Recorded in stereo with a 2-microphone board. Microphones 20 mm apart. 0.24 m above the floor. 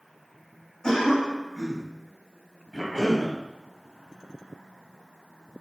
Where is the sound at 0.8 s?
40° left (ahead or behind), 1.8 m.